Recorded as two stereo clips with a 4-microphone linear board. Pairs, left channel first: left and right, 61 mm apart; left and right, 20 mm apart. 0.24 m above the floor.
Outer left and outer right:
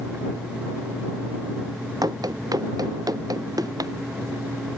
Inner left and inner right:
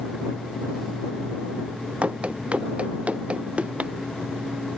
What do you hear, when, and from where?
2.0 s running footsteps: 85° right